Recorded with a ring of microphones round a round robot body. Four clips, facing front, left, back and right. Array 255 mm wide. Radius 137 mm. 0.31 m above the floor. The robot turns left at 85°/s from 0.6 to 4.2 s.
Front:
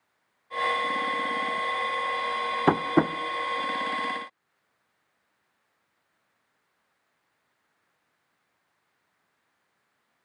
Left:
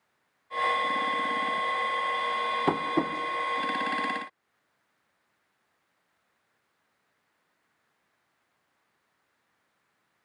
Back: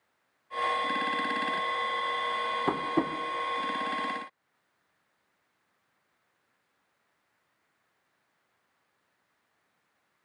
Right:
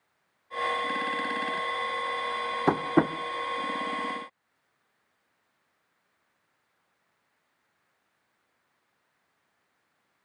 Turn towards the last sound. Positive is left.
turn(degrees=-140)